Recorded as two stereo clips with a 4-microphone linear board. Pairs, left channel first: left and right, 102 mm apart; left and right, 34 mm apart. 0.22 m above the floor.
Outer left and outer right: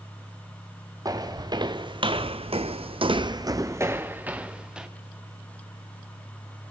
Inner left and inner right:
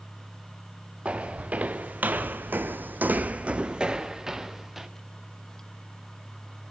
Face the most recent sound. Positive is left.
turn(degrees=-10)  # may be behind; listen again after turning